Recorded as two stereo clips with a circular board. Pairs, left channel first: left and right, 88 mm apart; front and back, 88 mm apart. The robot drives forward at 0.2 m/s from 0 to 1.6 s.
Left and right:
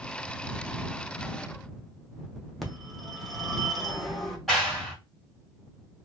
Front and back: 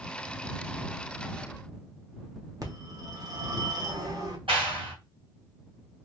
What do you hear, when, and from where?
2.6 s a phone ringing: 175° left, 0.8 m
4.5 s a clap: 175° left, 1.9 m